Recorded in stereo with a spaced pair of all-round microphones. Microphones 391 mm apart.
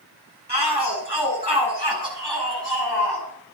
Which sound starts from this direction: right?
A shout, at 0.5 s.